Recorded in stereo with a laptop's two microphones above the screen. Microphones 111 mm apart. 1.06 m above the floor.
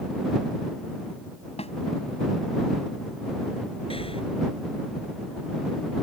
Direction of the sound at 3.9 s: 55° left (ahead or behind).